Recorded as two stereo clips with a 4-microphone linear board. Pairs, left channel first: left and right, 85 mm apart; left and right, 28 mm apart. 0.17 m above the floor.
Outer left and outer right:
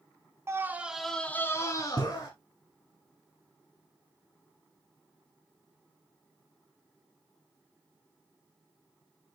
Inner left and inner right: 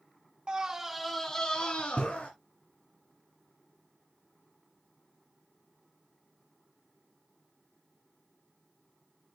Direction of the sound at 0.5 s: 30° right (ahead or behind).